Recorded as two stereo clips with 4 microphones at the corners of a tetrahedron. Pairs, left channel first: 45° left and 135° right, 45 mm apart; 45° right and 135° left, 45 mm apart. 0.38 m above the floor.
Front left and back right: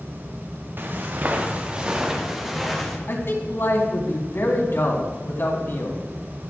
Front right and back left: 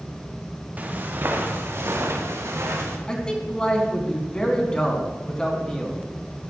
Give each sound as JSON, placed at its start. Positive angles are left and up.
{"t": 0.8, "sound": "footsteps", "azimuth_deg": -170, "distance_m": 3.0}
{"t": 3.1, "sound": "a man speaking", "azimuth_deg": 25, "distance_m": 3.5}